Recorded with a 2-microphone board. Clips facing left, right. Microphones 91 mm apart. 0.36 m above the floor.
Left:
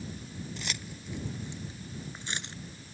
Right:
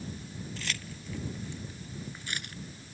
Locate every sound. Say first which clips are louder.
0.6 s keys jangling: even; 20° left (ahead or behind); by 2.5 s 25° left (ahead or behind)